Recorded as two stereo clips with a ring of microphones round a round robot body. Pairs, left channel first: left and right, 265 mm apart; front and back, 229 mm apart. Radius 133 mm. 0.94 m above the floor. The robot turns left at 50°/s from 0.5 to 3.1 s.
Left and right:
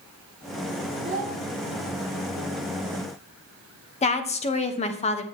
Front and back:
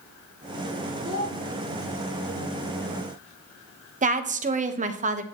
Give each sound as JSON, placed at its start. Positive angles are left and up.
{"t": 1.0, "sound": "a child speaking", "azimuth_deg": -140, "distance_m": 2.5}
{"t": 4.0, "sound": "a woman speaking", "azimuth_deg": 145, "distance_m": 0.9}